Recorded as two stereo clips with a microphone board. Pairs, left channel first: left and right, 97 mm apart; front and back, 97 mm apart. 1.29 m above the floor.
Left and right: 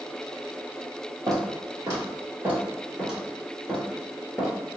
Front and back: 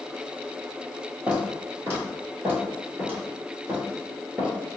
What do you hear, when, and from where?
1.3 s footsteps: 120° right, 1.9 m; by 4.5 s 110° left, 1.4 m